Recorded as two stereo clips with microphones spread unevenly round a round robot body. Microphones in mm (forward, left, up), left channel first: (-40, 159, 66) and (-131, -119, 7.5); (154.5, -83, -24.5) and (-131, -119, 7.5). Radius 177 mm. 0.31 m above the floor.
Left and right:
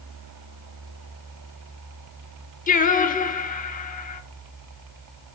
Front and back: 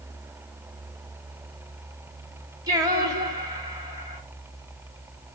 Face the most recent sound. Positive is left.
turn(degrees=110)